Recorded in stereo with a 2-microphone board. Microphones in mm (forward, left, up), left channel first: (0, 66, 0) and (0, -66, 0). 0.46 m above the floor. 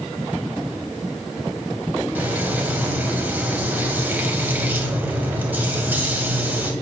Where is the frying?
15° right (ahead or behind), 2 m.